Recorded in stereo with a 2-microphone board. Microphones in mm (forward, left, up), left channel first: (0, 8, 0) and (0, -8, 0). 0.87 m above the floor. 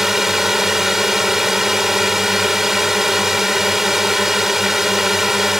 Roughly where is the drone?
Centre.